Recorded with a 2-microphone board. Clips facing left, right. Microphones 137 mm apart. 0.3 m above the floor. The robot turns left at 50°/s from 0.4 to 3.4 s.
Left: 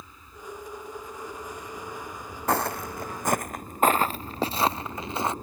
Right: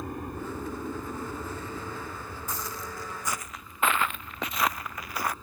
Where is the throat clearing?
I don't hear throat clearing.